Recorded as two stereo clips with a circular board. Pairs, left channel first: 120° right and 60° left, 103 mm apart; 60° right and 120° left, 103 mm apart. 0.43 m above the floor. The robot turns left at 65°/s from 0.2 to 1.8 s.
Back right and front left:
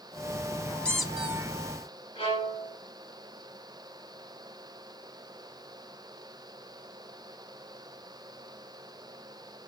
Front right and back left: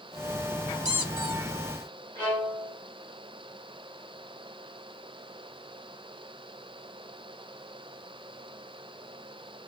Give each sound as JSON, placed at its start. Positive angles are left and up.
{"t": 0.8, "sound": "a squeak", "azimuth_deg": 160, "distance_m": 0.5}
{"t": 2.1, "sound": "a violin", "azimuth_deg": -135, "distance_m": 4.0}